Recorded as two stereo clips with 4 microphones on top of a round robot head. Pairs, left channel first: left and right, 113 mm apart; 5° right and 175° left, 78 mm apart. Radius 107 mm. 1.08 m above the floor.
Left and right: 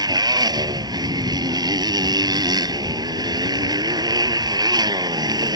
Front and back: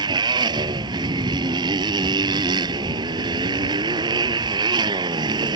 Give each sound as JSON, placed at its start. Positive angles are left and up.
{"t": 0.0, "sound": "a motorcycle", "azimuth_deg": -145}